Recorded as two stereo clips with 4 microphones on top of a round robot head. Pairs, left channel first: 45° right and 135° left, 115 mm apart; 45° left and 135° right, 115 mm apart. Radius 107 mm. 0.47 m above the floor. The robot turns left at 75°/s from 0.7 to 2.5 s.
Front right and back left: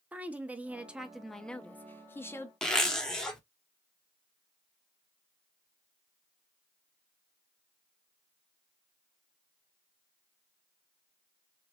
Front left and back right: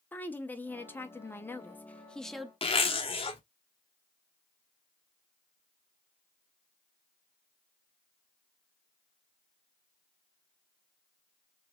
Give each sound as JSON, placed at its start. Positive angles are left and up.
{"t": 0.1, "sound": "a woman speaking", "azimuth_deg": 85, "distance_m": 0.8}
{"t": 2.6, "sound": "a zipper", "azimuth_deg": 40, "distance_m": 1.3}